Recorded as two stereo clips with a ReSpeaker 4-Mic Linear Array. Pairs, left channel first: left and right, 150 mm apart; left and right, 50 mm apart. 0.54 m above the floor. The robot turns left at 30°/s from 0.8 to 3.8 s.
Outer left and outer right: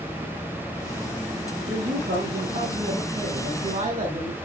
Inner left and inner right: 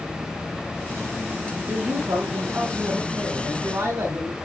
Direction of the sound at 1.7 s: 65° right.